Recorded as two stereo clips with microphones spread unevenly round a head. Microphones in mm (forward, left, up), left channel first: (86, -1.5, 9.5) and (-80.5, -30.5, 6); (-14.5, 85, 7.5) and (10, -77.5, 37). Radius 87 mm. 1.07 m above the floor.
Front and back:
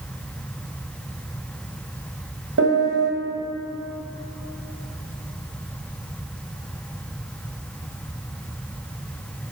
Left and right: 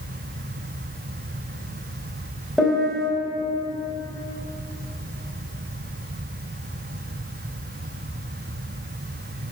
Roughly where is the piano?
Behind.